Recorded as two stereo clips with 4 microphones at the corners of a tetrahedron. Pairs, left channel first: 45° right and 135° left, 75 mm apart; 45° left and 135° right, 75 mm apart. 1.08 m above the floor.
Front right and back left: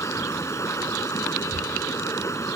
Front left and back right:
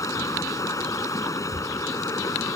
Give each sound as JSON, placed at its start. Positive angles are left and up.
{"t": 0.0, "sound": "running water", "azimuth_deg": 5}